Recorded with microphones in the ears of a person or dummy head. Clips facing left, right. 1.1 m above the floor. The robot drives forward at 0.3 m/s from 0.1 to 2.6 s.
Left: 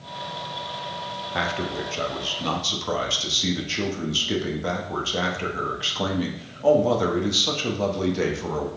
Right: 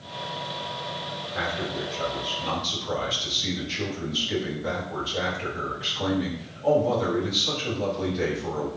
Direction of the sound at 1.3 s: 85° left.